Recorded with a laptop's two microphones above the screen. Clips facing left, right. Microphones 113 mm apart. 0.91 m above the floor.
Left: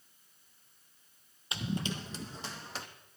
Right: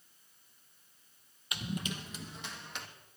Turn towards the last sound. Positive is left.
turn(degrees=30)  # may be behind; listen again after turning